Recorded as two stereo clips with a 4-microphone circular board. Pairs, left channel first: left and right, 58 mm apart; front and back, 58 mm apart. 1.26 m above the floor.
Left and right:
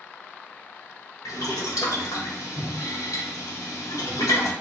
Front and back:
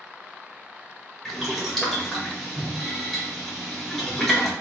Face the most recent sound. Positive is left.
turn(degrees=90)